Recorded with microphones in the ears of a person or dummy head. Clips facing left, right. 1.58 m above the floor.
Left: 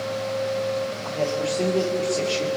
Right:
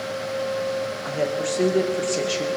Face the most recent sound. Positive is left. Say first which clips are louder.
# right 1 dB
turn(degrees=-10)  # may be behind; listen again after turning